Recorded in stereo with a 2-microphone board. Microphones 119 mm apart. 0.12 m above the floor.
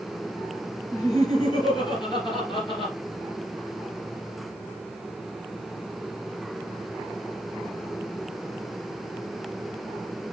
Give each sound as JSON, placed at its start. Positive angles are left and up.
{"t": 0.9, "sound": "laughter", "side_deg": 30, "distance_m": 2.5}